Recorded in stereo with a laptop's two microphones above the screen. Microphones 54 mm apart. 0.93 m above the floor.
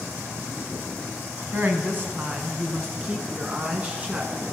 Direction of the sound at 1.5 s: 40° right (ahead or behind).